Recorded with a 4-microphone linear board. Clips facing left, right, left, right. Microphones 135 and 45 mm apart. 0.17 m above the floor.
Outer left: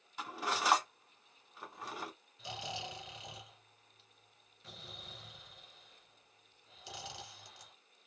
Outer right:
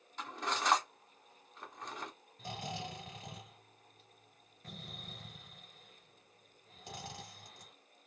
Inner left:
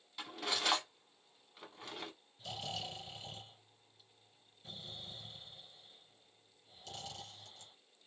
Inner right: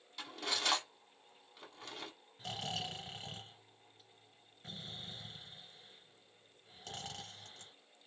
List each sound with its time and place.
0.2 s cutlery clinking: 5° left (ahead or behind), 0.7 m
2.4 s snoring: 45° right (ahead or behind), 1.4 m